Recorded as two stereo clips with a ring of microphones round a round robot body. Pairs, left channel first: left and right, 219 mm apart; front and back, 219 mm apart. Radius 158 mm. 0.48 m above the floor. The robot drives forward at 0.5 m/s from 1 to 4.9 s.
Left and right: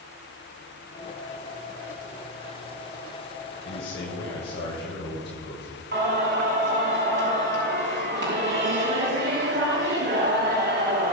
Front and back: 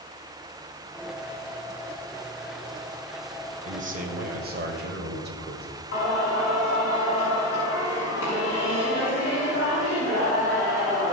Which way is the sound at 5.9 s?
55° right.